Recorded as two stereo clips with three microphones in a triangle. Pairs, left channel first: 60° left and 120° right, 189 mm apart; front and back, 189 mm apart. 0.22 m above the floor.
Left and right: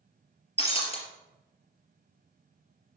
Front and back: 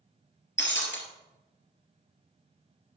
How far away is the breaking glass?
About 3 m.